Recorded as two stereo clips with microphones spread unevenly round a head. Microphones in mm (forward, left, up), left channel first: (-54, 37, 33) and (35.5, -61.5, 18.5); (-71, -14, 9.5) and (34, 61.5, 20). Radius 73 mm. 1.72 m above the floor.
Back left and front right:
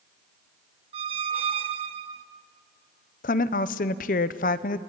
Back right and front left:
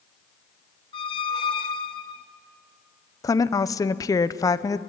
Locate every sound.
0.9 s a squeak: 90° right, 1.0 m
3.2 s a woman speaking: 150° left, 0.8 m